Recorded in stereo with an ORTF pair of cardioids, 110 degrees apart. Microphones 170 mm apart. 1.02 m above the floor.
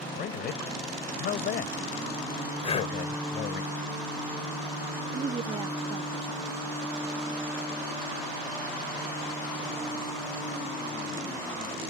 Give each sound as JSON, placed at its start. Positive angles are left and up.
{"t": 0.1, "sound": "a man speaking", "azimuth_deg": 65}
{"t": 2.6, "sound": "breathing", "azimuth_deg": 35}
{"t": 5.1, "sound": "a woman speaking", "azimuth_deg": -30}